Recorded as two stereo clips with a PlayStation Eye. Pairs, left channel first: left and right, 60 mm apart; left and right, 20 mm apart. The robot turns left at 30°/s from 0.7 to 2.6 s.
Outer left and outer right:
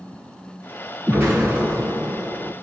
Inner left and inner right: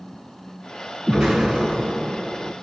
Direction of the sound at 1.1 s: 30° right.